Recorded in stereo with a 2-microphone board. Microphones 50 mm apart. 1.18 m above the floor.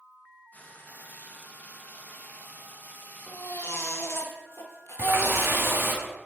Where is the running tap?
45° right (ahead or behind), 1.5 m.